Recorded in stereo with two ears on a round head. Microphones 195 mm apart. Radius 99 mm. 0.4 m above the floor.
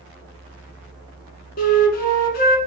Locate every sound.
1.6 s a flute: 40° left (ahead or behind), 1.2 m